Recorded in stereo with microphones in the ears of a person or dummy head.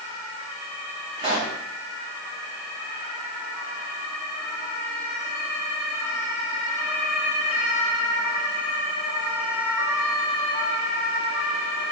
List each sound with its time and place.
1.2 s a pop: 25° right (ahead or behind), 1.4 m